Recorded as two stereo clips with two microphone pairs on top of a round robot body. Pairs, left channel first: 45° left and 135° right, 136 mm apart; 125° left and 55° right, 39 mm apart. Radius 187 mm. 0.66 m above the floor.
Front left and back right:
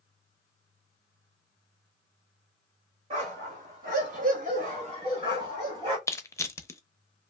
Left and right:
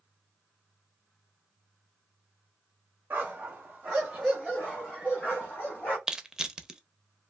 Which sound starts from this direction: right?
A dog barking, at 3.1 s.